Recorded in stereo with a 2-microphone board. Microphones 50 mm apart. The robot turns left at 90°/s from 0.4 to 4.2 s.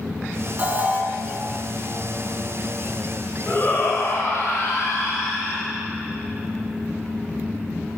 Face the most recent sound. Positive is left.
turn(degrees=90)